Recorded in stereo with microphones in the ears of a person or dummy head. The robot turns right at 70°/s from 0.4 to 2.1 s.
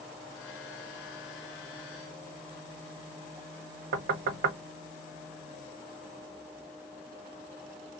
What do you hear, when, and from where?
3.9 s knocking: 50° right (ahead or behind), 1.0 m